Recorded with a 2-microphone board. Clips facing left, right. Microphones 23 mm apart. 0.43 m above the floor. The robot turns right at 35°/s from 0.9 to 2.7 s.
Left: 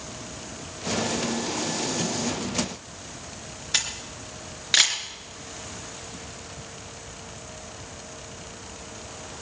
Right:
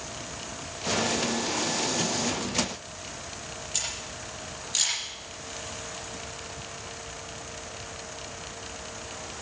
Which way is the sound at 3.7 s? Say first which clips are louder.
Left 7 dB; 80° left.